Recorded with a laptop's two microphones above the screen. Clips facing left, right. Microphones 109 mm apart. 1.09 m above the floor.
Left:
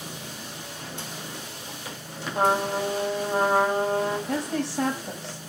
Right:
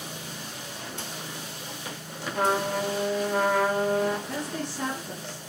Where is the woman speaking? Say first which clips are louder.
Left 5 dB; 80° left, 2 m.